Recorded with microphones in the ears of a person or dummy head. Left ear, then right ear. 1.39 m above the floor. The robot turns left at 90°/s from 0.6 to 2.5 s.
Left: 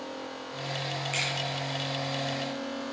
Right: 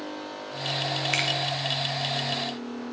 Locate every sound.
1.1 s a finger snap: 45° right (ahead or behind), 0.9 m; by 1.3 s 30° right (ahead or behind), 0.9 m